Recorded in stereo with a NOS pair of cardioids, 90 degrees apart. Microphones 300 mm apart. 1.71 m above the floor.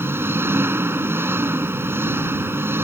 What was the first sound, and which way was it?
An engine running, 5° right.